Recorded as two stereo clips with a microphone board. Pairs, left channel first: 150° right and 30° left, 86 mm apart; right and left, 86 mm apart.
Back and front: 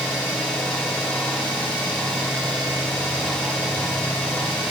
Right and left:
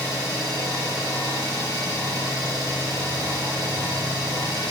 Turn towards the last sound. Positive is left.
turn(degrees=130)